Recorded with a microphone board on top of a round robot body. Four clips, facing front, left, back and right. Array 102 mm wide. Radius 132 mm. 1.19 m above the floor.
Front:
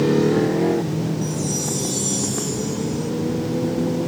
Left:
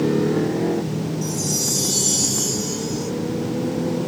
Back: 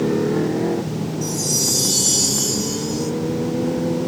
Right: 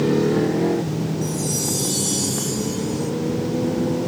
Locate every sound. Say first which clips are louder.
1.2 s a chime: right 1 dB, even; 170° left